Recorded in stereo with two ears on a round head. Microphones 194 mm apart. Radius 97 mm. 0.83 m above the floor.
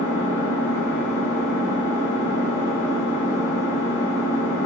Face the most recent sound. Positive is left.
turn(degrees=-5)  # may be behind; listen again after turning